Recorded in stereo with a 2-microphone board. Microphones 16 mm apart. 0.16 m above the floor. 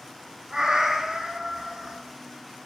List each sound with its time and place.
0.5 s a cat meowing: 55° right (ahead or behind), 0.8 m